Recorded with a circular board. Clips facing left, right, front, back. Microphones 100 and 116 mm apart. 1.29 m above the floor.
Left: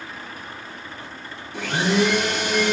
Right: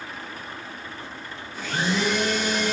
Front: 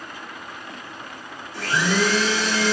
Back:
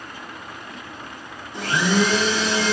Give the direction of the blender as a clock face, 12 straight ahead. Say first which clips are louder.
Left 5 dB, back 2 dB; 8 o'clock.